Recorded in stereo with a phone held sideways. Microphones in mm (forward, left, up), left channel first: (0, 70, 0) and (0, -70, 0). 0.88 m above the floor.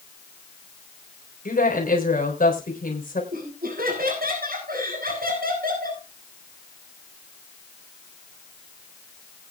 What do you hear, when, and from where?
1.4 s a woman speaking: 70° left (ahead or behind), 3.5 m
3.3 s laughter: 80° right, 6.5 m